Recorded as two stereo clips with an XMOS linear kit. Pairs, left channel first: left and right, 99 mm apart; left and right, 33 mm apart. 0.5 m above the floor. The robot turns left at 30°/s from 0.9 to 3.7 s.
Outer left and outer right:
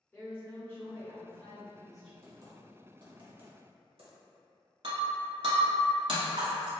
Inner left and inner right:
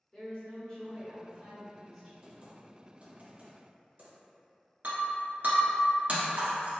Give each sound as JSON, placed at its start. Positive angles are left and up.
{"t": 0.1, "sound": "a woman speaking", "azimuth_deg": 30, "distance_m": 1.4}
{"t": 2.2, "sound": "typing on a keyboard", "side_deg": -30, "distance_m": 0.9}
{"t": 4.8, "sound": "breaking glass", "side_deg": -60, "distance_m": 1.2}